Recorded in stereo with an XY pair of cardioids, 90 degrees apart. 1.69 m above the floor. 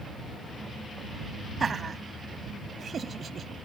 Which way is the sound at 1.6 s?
45° right.